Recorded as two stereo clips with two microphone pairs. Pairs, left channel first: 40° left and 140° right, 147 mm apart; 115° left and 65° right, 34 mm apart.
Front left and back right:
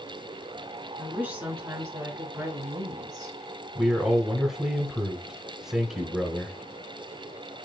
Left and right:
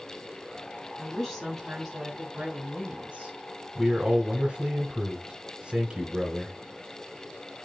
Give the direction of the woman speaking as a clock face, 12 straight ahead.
7 o'clock.